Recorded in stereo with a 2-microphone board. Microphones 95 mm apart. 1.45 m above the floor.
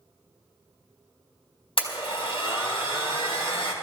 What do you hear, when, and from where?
1.8 s a blender: 75° left (ahead or behind), 4 m